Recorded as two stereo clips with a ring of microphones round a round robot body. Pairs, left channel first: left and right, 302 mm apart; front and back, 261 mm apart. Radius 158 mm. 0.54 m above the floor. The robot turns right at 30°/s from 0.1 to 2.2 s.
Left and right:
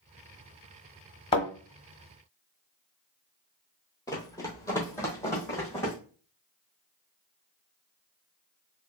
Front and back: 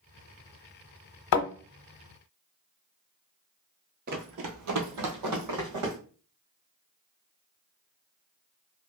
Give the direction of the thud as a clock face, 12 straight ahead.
11 o'clock.